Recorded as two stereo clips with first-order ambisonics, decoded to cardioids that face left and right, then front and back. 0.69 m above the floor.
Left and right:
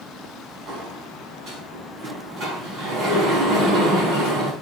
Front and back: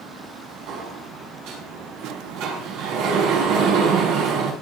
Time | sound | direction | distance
0.7 | a sliding door | 145° right | 6 m